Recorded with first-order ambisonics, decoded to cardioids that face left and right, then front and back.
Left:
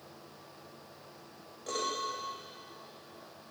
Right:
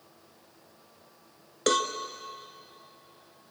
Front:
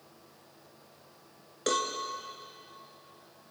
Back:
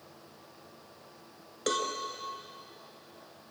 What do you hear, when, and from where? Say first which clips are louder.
1.7 s a cowbell: right 9 dB, front 1 dB; 90° right, 2 m